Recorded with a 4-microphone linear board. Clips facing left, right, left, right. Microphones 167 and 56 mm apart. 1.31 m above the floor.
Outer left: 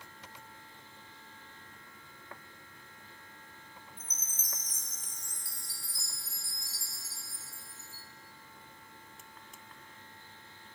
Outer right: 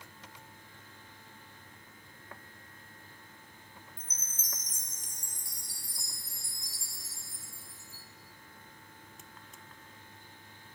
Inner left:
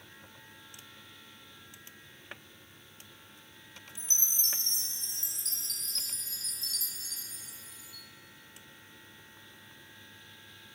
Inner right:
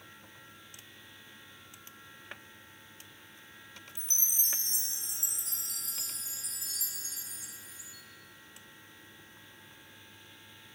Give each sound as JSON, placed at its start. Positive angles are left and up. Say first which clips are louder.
{"t": 4.0, "sound": "a chime", "louder": "even, inner left 2 dB", "side_deg": -15, "distance_m": 0.5}